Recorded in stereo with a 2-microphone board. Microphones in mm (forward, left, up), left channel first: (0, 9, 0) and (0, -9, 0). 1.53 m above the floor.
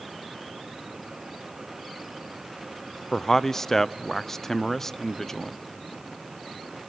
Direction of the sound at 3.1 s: 20° left (ahead or behind).